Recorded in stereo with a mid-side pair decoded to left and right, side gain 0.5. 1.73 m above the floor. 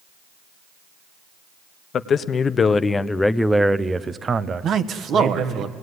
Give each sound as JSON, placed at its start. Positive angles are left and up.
{"t": 1.9, "sound": "a man speaking", "azimuth_deg": 50, "distance_m": 1.1}
{"t": 4.6, "sound": "a man speaking", "azimuth_deg": -55, "distance_m": 1.3}